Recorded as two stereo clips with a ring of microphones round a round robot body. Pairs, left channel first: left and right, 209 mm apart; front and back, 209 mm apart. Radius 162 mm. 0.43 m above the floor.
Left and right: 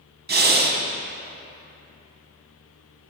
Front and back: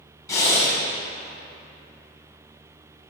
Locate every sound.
0.3 s breathing: 70° right, 1.0 m